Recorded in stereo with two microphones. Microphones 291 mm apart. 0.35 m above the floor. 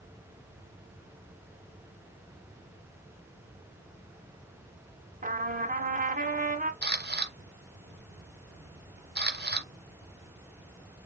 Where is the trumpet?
30° right (ahead or behind), 0.8 m.